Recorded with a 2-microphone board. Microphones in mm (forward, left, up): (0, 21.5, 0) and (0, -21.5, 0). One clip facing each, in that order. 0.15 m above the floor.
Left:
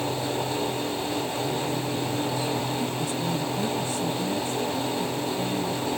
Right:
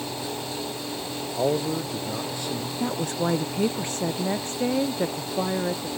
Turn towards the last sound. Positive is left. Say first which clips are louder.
# right 2 dB
turn(degrees=-55)  # may be behind; listen again after turning